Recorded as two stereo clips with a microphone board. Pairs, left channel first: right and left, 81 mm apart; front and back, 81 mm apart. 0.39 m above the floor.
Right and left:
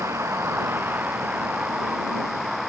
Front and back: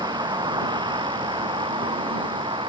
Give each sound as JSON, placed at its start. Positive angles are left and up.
{"t": 0.0, "sound": "a vehicle", "azimuth_deg": 150}